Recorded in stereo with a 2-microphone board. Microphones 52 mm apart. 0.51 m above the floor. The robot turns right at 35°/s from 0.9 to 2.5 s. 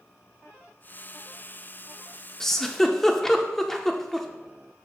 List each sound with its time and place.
2.4 s a giggle: 10° left (ahead or behind), 0.6 m; by 4.3 s 5° left (ahead or behind), 0.6 m